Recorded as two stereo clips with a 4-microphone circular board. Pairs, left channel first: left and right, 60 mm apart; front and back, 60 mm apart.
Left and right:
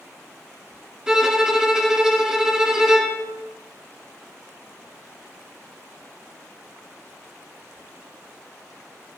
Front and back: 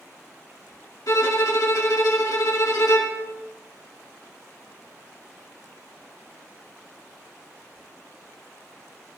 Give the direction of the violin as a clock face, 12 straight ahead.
12 o'clock.